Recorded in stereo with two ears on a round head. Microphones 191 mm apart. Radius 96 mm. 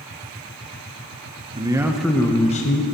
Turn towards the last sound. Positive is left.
turn(degrees=40)  # may be behind; listen again after turning